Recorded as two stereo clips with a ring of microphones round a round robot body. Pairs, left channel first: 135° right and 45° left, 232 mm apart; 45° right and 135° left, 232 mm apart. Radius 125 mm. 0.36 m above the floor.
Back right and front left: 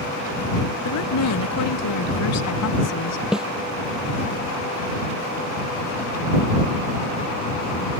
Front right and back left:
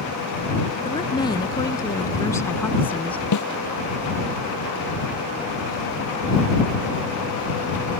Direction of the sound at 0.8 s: 115° right.